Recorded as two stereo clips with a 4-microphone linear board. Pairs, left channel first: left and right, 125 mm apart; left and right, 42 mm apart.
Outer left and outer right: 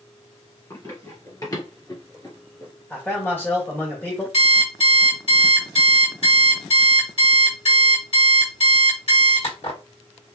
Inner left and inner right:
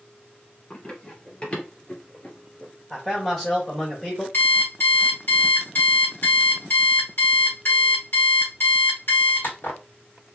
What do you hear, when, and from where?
0.7 s running footsteps: 25° left (ahead or behind), 1.8 m; by 2.7 s 30° left (ahead or behind), 1.7 m
2.9 s a man speaking: 20° left (ahead or behind), 1.5 m
4.3 s an alarm clock: 65° left (ahead or behind), 2.5 m